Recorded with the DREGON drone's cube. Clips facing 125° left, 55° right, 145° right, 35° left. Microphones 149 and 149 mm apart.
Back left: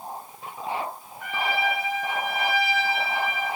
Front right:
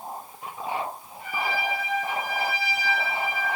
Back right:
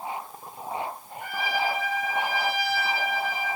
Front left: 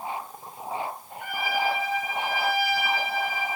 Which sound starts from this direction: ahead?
A trumpet, at 1.2 s.